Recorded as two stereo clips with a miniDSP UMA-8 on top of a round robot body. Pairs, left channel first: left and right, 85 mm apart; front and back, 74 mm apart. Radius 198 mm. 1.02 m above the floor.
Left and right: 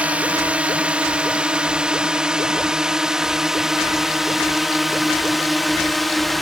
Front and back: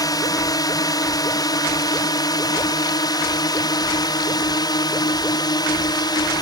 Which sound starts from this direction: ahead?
A drone, at 0.0 s.